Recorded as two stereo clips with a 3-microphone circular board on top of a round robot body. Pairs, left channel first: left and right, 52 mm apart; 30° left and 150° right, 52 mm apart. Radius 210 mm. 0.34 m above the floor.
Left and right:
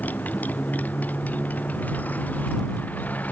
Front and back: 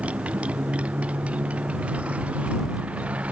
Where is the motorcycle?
145° left.